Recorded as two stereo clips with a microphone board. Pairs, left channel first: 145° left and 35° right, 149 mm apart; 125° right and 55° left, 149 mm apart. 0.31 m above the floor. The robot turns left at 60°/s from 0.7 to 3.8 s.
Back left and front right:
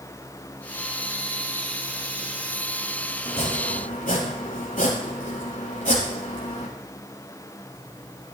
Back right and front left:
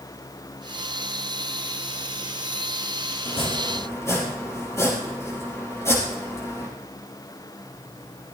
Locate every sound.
3.2 s chopping: 160° right, 4.5 m; by 6.7 s 165° left, 4.5 m